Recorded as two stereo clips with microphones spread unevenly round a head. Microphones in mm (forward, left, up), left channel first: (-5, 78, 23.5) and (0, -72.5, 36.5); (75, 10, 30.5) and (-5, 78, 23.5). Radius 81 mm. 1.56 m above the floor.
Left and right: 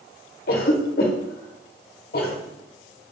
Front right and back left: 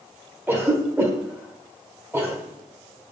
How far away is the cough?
About 1.2 m.